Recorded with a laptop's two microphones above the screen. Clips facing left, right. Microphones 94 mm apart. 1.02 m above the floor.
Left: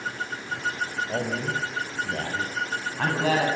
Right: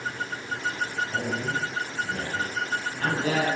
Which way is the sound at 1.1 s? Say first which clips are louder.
Left 1 dB; 65° left (ahead or behind).